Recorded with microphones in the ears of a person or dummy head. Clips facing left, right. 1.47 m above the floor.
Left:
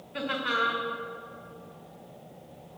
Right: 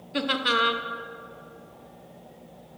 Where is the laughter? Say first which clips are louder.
Right 5 dB; 50° right (ahead or behind), 0.8 m.